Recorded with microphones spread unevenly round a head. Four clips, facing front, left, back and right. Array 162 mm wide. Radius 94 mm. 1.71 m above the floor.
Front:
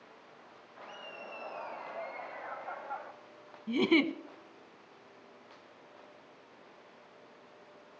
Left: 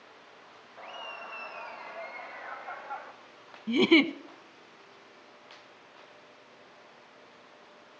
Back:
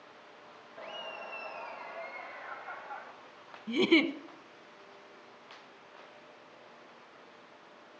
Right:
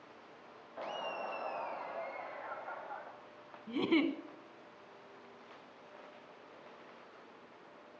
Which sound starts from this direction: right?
Laughter, at 0.8 s.